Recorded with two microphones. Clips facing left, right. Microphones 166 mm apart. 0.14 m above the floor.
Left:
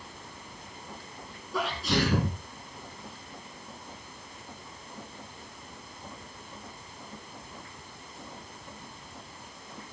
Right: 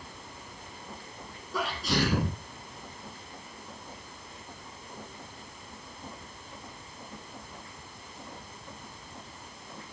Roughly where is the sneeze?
Centre.